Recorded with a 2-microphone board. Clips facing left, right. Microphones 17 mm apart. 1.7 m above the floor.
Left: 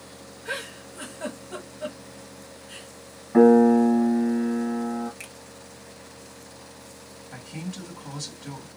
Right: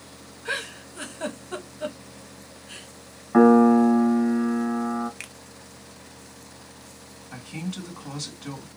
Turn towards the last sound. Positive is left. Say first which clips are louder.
# right 3 dB
turn(degrees=-75)  # may be behind; listen again after turning